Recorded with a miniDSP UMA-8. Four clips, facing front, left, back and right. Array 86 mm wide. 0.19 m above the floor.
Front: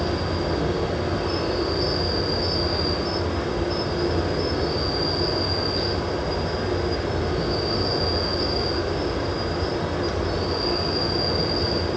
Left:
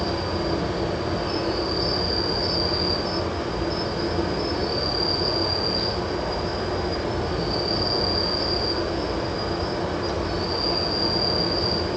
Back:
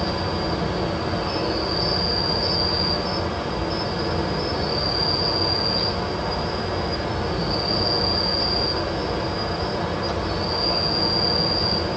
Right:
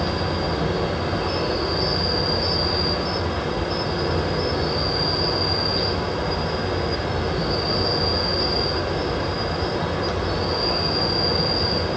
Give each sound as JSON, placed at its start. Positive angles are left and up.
{"t": 0.0, "sound": "an insect", "azimuth_deg": -85, "distance_m": 6.0}